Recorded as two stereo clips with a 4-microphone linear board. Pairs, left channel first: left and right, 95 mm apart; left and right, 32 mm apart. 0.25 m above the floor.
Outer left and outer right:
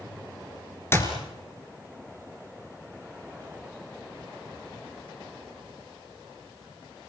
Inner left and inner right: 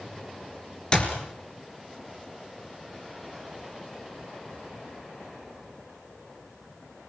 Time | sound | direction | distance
0.9 | a clap | 25° left (ahead or behind) | 3.5 m